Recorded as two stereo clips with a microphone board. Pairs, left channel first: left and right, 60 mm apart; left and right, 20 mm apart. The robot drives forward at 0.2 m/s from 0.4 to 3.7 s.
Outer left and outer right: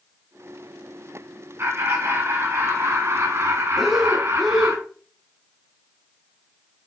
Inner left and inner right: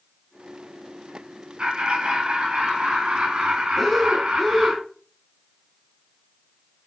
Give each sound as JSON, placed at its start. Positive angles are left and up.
{"t": 1.6, "sound": "laughter", "side_deg": -50, "distance_m": 2.5}
{"t": 3.8, "sound": "breathing", "side_deg": 0, "distance_m": 1.3}